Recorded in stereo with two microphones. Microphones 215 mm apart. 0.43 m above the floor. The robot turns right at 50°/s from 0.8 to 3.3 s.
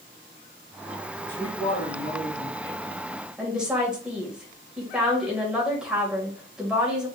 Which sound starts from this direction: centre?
A woman speaking, at 3.4 s.